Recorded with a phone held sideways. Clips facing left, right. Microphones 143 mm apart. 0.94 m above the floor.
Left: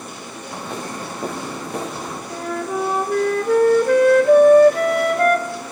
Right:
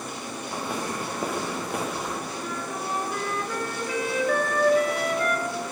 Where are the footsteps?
10° right (ahead or behind), 8.5 m; by 2.2 s centre (ahead or behind), 10 m.